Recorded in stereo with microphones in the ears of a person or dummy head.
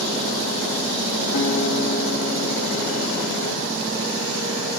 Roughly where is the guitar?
Left.